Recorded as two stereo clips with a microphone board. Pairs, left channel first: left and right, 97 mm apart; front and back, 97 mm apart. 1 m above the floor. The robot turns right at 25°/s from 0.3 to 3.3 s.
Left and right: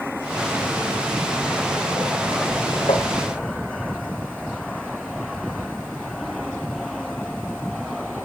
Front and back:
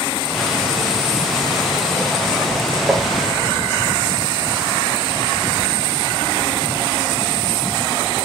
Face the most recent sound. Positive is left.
turn(degrees=105)